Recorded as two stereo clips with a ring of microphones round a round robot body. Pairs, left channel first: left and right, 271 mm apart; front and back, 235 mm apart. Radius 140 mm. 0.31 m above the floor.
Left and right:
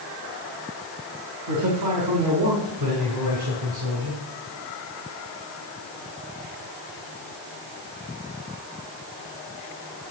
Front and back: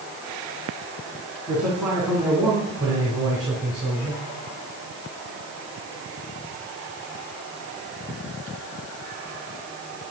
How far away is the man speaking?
About 2.5 m.